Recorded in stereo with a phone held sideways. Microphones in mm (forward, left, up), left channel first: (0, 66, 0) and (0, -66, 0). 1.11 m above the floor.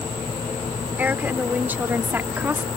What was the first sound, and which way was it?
A woman speaking, 15° right (ahead or behind).